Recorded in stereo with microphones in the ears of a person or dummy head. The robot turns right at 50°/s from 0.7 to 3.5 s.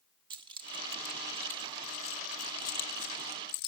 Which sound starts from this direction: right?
Keys jangling, at 0.3 s.